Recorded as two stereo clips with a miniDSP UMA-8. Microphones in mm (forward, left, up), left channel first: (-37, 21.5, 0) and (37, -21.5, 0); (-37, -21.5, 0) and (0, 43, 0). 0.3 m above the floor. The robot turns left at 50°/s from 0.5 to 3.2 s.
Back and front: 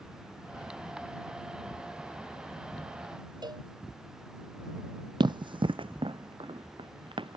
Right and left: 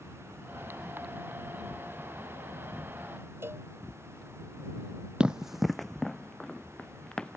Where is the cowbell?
5° left.